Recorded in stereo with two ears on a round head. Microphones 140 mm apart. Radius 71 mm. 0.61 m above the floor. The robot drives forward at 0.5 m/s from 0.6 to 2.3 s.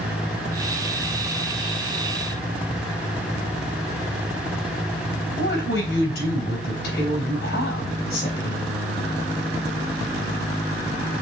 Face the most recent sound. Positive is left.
turn(degrees=70)  # may be behind; listen again after turning